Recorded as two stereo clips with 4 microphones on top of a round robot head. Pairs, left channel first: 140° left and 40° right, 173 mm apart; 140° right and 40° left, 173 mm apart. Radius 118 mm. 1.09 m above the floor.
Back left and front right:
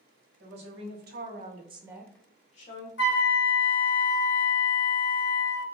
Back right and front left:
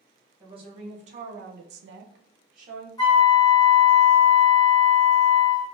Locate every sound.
0.4 s a woman speaking: 20° right, 1.3 m; by 2.9 s 100° left, 0.7 m
3.0 s a flute: 155° left, 0.5 m